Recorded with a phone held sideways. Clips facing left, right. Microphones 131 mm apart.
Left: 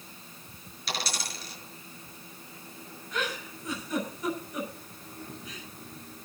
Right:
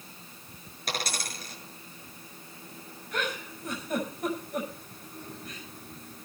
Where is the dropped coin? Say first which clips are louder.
Right 1 dB; 50° right (ahead or behind), 6 m.